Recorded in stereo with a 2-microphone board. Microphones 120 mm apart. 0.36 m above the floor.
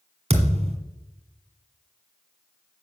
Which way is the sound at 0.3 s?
55° right (ahead or behind).